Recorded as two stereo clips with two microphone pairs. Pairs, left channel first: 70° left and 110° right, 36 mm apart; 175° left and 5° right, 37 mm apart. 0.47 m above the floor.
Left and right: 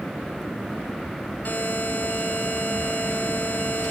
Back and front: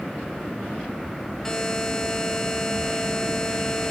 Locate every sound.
1.4 s a buzzer: 100° left, 2.0 m